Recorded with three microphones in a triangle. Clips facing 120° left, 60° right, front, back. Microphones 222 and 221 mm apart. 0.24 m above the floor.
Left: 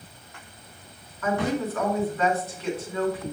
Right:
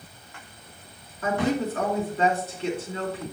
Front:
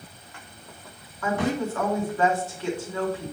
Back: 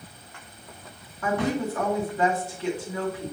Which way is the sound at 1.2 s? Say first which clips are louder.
Right 1 dB, even; 115° right.